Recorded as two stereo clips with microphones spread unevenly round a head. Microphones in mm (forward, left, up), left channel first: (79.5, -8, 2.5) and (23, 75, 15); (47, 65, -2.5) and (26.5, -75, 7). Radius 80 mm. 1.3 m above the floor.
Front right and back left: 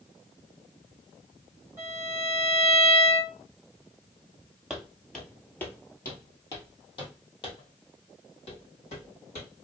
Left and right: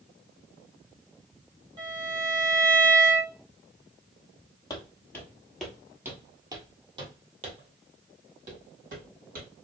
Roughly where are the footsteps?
Ahead left.